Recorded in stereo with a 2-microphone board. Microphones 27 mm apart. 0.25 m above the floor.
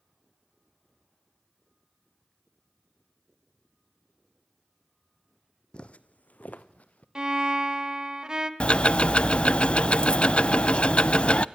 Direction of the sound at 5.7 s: 45° left (ahead or behind).